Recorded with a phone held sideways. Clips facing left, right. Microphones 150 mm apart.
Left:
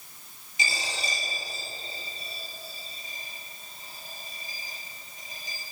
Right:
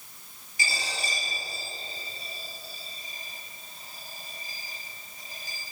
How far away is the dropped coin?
About 6.5 m.